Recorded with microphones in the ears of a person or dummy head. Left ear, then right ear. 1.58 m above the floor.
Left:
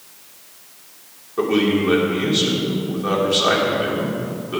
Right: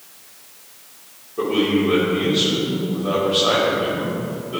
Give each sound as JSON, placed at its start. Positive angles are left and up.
{"t": 1.4, "sound": "a man speaking", "side_deg": 60, "distance_m": 3.5}